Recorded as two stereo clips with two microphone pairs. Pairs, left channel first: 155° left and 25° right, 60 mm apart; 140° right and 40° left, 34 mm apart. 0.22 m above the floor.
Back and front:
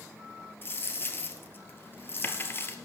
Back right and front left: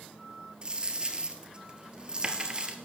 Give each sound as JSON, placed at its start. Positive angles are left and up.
{"t": 0.6, "sound": "a dropped coin", "azimuth_deg": 105, "distance_m": 1.5}